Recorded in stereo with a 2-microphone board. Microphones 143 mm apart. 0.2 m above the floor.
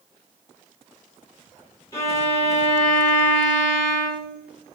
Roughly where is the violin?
Left.